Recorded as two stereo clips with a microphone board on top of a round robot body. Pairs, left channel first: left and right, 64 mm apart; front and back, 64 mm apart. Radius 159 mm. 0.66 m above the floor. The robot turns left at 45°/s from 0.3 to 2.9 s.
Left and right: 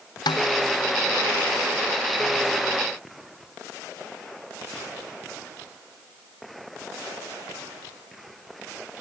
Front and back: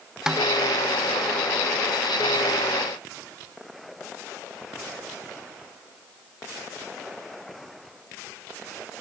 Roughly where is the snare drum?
Left.